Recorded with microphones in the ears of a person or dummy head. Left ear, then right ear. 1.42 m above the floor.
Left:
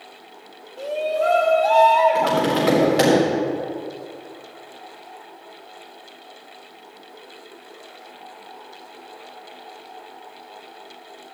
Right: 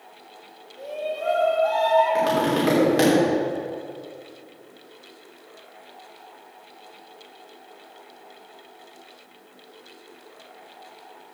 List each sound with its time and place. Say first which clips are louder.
0.8 s a shout: left 7 dB; 35° left (ahead or behind), 1.8 m
2.1 s tapping: left 2 dB; centre (ahead or behind), 4 m